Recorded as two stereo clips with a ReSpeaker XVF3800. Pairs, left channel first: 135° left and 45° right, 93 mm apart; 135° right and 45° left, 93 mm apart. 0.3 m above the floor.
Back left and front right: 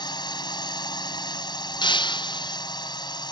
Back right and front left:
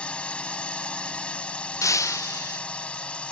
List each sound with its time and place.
0.0 s a drone: 150° left
1.8 s breaking glass: 170° left